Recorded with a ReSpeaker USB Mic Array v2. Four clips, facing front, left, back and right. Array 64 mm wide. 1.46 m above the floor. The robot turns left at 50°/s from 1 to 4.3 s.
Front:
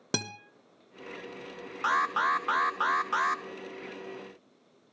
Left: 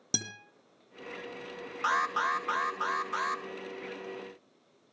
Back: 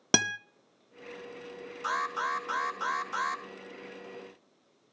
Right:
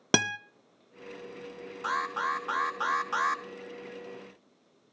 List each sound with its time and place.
0.1 s a guitar: 115° right, 0.6 m
1.8 s an alarm: 35° left, 1.0 m; by 3.4 s 45° right, 1.0 m